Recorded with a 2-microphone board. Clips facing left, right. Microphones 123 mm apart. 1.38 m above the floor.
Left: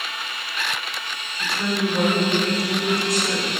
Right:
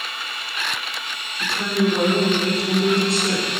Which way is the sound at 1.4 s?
30° right (ahead or behind).